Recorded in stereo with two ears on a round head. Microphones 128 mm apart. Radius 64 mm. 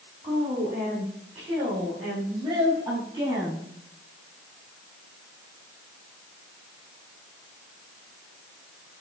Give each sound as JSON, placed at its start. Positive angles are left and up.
{"t": 0.2, "sound": "a woman speaking", "side_deg": -45, "distance_m": 7.0}